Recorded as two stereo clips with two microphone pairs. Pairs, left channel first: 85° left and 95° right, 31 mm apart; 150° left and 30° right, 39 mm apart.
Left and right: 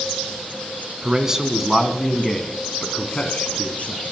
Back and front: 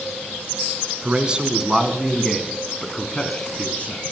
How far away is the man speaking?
About 1.8 m.